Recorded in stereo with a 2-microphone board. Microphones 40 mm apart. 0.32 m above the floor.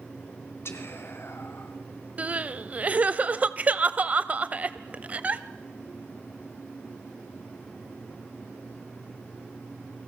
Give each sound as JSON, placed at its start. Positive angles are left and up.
{"t": 0.7, "sound": "whispering", "side_deg": 65, "distance_m": 3.0}
{"t": 2.2, "sound": "crying", "side_deg": -35, "distance_m": 0.7}